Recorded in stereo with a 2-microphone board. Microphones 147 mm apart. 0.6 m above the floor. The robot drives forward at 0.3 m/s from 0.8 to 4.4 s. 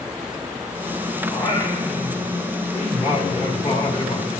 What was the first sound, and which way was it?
Singing, 25° left (ahead or behind).